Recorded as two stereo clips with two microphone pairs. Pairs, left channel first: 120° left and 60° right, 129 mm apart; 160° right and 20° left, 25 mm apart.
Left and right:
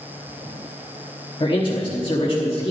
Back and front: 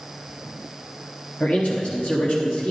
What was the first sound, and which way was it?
A man speaking, 170° left.